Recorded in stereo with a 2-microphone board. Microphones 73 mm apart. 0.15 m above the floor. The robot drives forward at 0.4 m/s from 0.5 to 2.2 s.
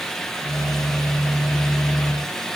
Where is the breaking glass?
I don't hear breaking glass.